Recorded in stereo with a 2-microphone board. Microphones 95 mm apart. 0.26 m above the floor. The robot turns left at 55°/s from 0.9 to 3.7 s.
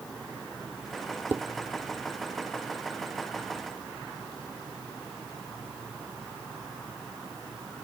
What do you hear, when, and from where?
1.3 s dishes clattering: 20° right (ahead or behind); by 1.4 s 10° right (ahead or behind)